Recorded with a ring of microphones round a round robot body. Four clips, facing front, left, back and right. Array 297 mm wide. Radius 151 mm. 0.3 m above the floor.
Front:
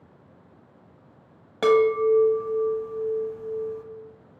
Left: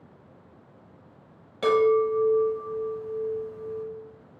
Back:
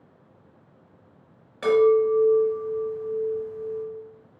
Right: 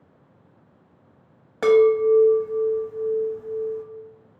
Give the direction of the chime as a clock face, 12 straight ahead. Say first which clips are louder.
Right 5 dB, back 1 dB; 1 o'clock.